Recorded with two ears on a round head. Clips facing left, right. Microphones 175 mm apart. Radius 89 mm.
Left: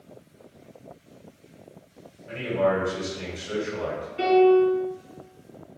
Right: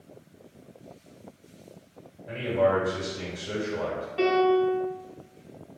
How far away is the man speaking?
About 1.8 m.